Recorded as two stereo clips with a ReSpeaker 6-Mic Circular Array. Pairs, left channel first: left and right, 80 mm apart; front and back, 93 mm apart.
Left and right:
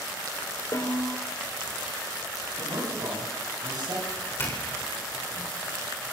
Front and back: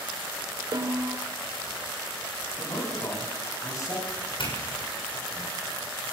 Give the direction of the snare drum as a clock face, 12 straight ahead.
8 o'clock.